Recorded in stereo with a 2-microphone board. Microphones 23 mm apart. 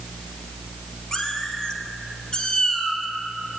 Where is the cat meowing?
25° left (ahead or behind), 2.5 m; by 3.0 s 35° left (ahead or behind), 3.5 m.